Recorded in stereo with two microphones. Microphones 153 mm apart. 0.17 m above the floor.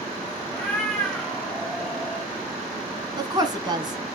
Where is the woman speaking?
30° right (ahead or behind), 1.6 m.